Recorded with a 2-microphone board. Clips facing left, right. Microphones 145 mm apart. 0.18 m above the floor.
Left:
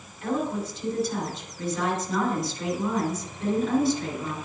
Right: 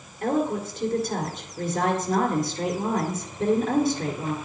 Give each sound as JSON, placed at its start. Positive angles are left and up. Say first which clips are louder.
{"t": 0.2, "sound": "a woman speaking", "louder": "right 3 dB", "side_deg": -55, "distance_m": 3.5}